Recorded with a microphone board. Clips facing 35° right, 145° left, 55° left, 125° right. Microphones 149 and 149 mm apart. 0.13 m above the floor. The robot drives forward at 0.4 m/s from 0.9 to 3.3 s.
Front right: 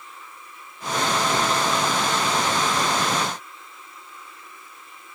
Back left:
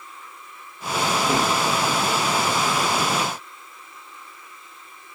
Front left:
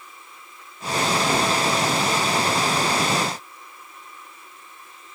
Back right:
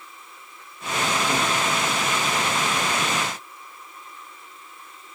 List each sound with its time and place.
1.3 s a gunshot: 125° left, 1.5 m